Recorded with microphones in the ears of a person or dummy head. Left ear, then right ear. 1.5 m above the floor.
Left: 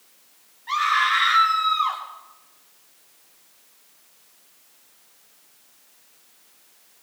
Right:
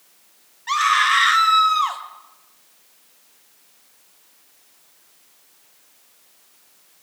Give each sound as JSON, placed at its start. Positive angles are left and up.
{"t": 0.7, "sound": "a scream", "side_deg": -80, "distance_m": 1.8}